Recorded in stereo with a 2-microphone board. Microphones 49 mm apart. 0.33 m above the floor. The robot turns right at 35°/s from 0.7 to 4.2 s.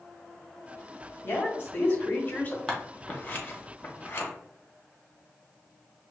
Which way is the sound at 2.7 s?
15° left (ahead or behind).